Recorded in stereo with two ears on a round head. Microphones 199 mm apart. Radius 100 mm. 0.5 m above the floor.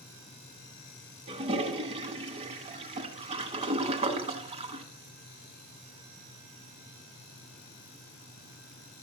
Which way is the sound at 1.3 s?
30° right (ahead or behind).